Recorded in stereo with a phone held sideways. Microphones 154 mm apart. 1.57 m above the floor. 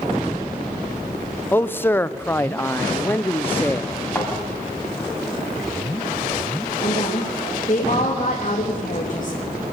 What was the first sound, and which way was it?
A man speaking, 15° left (ahead or behind).